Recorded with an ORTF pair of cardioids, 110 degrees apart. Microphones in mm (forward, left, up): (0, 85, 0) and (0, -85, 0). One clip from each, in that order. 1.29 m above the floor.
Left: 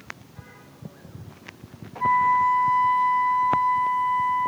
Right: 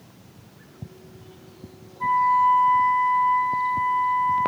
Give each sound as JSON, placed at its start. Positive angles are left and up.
{"t": 2.0, "sound": "a flute", "azimuth_deg": 15, "distance_m": 2.5}